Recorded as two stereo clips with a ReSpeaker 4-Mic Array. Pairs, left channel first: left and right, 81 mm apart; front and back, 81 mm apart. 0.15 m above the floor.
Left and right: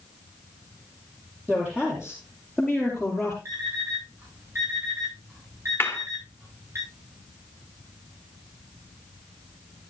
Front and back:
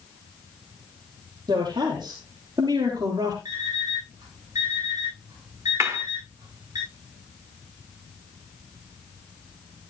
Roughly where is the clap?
Behind left.